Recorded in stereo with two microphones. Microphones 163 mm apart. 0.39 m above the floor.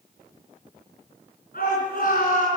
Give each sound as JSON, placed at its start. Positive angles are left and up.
{"t": 1.5, "sound": "a shout", "side_deg": 60, "distance_m": 5.5}